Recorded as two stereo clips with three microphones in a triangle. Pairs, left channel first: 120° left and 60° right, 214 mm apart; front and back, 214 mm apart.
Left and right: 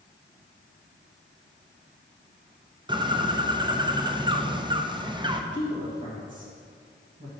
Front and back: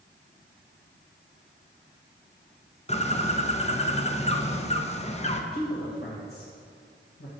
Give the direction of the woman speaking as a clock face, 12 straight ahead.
12 o'clock.